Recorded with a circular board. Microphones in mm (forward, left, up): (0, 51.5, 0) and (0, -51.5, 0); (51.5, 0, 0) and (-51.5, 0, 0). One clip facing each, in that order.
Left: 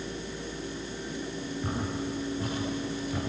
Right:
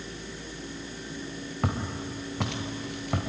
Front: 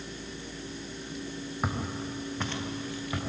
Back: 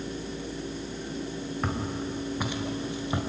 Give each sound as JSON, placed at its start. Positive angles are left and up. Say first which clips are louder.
{"t": 1.6, "sound": "footsteps", "louder": "right 2 dB, back 1 dB", "azimuth_deg": -80, "distance_m": 3.5}